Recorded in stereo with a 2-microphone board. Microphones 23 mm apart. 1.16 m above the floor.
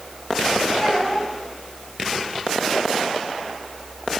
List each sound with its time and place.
0.8 s a child speaking: 45° left (ahead or behind), 4.5 m